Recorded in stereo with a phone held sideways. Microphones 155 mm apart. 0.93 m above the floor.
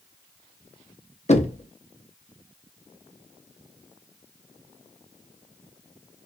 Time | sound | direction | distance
1.3 | knocking | 45° left (ahead or behind) | 0.8 m